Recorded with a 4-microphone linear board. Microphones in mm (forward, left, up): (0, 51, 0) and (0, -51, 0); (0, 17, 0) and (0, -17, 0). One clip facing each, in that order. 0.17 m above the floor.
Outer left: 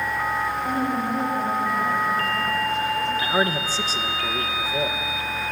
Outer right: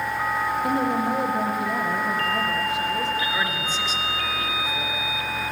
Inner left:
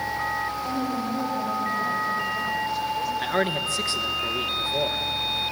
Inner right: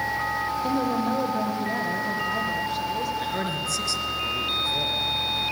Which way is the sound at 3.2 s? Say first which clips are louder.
Outer left 4 dB, inner left 3 dB; 35° left (ahead or behind).